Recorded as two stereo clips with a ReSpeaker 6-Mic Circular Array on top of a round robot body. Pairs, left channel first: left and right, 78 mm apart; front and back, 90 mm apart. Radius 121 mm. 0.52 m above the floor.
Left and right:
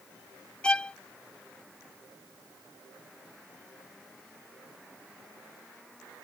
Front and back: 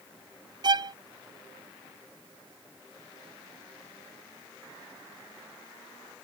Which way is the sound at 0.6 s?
165° left.